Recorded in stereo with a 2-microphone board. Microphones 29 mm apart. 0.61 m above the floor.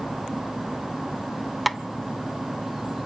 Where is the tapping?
Centre (ahead or behind), 0.7 m.